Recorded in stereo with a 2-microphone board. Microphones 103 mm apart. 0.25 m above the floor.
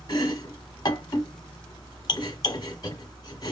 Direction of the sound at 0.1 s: 40° left (ahead or behind).